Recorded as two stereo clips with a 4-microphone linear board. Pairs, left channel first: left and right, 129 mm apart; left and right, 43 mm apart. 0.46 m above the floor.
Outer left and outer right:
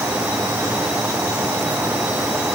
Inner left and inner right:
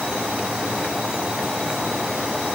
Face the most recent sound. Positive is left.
No sound to turn to.